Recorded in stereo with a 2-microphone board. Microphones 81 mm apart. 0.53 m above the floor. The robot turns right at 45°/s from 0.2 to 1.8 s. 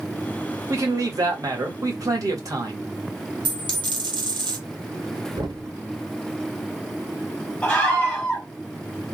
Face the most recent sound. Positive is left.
turn(degrees=20)  # may be behind; listen again after turning